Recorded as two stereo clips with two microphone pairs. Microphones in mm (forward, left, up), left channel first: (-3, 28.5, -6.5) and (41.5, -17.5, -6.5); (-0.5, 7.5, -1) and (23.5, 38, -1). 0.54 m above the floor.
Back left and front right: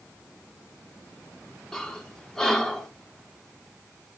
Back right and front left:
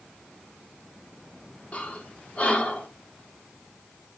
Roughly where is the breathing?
Behind right.